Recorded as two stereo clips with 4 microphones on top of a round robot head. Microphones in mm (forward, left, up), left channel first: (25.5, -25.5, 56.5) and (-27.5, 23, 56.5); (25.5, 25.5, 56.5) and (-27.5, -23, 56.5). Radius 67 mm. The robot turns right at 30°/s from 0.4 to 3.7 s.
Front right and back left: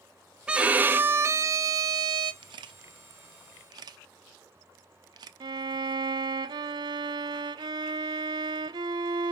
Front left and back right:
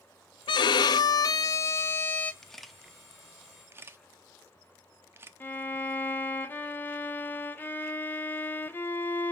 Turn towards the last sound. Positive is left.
turn(degrees=110)